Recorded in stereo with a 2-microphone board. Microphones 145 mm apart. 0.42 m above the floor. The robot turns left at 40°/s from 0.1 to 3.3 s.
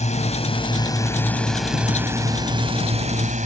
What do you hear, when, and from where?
0.0 s a drone: 60° left; by 3.5 s 65° right